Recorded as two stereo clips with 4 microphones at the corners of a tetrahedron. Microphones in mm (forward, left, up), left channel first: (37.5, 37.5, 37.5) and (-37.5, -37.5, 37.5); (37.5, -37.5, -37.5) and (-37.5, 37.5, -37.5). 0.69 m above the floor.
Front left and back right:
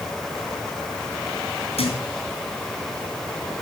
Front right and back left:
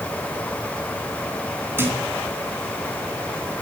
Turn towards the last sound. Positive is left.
turn(degrees=65)